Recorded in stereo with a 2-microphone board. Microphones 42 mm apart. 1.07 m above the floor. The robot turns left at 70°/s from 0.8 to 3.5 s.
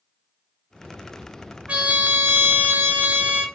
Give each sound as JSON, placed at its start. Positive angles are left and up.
{"t": 1.7, "sound": "a trumpet", "azimuth_deg": -25, "distance_m": 1.0}